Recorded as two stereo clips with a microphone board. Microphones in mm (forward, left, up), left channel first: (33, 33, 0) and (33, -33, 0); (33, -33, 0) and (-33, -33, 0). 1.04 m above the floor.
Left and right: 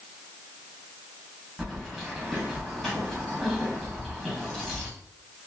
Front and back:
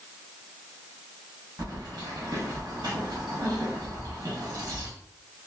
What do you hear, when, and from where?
1.6 s keys jangling: 170° left, 1.1 m